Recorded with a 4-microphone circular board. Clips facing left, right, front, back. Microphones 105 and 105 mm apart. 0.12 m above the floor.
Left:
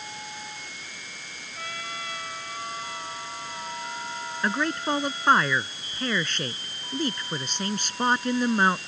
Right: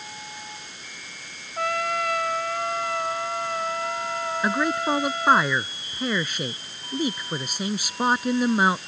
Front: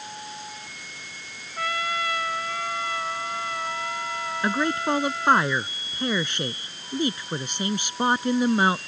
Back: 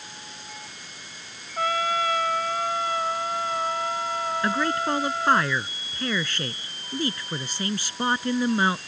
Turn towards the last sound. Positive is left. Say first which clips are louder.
# right 2 dB, front 2 dB
turn(degrees=-25)